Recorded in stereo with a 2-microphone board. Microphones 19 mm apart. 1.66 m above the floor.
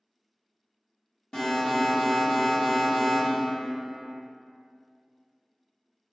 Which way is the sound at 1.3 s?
40° left (ahead or behind).